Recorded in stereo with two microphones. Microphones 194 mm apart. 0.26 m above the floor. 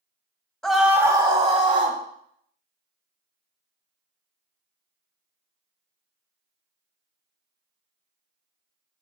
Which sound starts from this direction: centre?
A scream, at 0.6 s.